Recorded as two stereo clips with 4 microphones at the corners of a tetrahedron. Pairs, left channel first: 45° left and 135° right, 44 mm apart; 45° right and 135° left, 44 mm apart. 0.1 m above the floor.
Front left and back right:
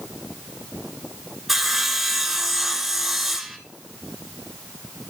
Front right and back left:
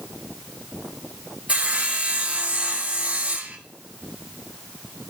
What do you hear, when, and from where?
1.5 s sawing: 150° left, 1.0 m